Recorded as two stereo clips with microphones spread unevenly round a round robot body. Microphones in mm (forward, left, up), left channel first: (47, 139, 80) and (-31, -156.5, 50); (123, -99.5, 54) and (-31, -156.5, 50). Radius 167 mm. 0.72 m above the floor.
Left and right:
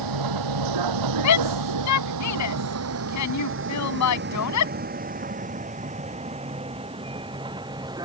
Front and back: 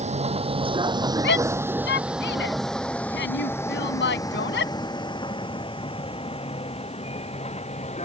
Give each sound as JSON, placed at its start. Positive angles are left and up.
{"t": 0.0, "sound": "a vehicle", "azimuth_deg": -115}
{"t": 1.2, "sound": "a shout", "azimuth_deg": 40}